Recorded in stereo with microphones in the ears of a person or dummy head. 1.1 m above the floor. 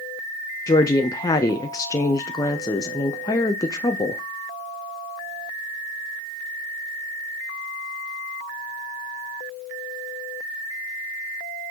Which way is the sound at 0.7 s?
20° left (ahead or behind).